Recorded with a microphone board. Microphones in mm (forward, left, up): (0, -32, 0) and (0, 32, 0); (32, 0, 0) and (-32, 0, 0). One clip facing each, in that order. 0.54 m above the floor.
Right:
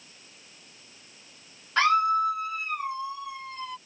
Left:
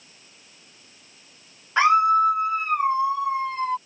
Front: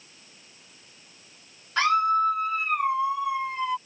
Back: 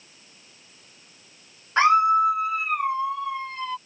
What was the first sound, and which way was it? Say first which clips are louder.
A scream: left 5 dB, back 4 dB; 145° left.